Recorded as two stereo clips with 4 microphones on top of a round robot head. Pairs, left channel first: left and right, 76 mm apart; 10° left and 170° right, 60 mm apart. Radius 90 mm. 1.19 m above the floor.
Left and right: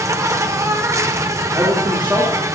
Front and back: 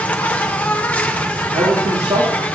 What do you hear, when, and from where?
0.0 s an insect: 50° right, 1.1 m
1.5 s a man speaking: 165° right, 3.5 m